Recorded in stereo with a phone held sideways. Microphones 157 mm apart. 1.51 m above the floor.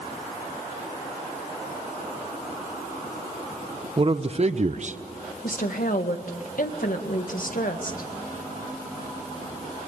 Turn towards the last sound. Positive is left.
turn(degrees=70)  # may be behind; listen again after turning